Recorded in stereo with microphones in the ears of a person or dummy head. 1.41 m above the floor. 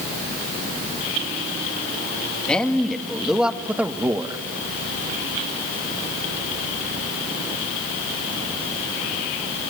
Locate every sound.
2.5 s a man speaking: centre (ahead or behind), 2 m; by 4.4 s 25° right (ahead or behind), 1.2 m